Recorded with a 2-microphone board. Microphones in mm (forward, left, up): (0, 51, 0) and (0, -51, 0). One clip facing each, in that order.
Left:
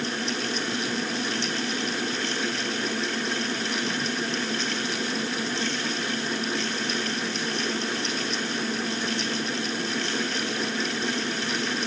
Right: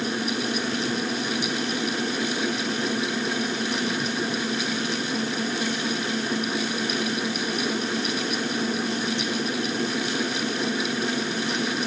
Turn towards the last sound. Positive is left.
No sound to turn to.